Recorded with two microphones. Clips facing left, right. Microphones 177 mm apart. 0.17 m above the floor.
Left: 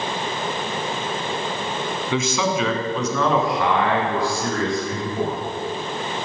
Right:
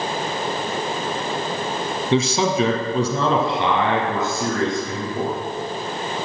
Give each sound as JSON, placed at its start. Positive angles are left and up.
{"t": 2.1, "sound": "a man speaking", "side_deg": -35, "distance_m": 1.2}